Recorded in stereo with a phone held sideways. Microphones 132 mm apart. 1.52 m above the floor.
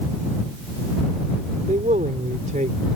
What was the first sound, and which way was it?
A man speaking, 75° right (ahead or behind).